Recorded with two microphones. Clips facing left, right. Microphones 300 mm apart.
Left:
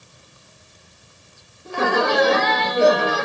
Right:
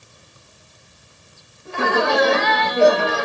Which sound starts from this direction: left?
Laughter, at 1.6 s.